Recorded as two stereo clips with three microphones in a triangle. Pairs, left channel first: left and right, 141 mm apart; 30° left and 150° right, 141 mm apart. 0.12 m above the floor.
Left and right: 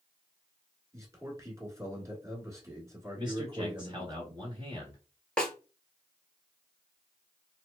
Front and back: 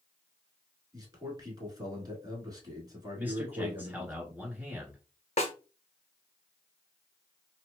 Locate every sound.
0.9 s a man speaking: 130° right, 1.3 m
3.2 s a man speaking: 85° right, 1.3 m
5.4 s a snare drum: 5° left, 0.7 m